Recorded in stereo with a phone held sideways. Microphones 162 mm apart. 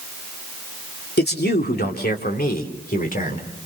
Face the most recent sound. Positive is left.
turn(degrees=55)  # may be behind; listen again after turning